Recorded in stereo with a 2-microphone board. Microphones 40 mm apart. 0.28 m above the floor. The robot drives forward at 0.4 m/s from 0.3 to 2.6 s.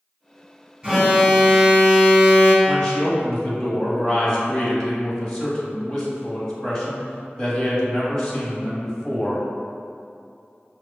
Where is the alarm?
15° right (ahead or behind), 1.3 m; by 2.5 s 25° right (ahead or behind), 0.9 m.